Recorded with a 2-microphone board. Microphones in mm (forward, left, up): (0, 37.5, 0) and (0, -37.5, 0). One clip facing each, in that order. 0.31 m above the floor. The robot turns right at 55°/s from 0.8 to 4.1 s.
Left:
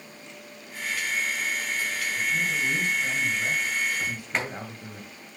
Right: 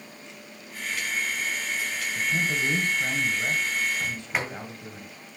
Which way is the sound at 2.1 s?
100° right.